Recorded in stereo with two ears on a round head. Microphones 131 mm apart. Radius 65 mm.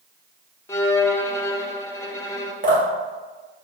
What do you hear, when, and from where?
0.7 s a violin: 20° left (ahead or behind), 0.7 m
2.6 s dripping: 60° right (ahead or behind), 2.5 m